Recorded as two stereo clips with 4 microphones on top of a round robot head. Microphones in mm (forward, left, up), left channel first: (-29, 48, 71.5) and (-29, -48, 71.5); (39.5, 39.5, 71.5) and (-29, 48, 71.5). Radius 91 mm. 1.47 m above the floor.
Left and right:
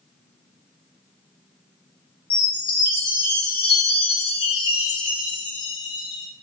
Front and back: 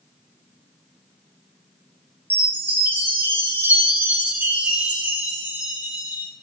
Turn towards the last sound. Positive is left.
turn(degrees=115)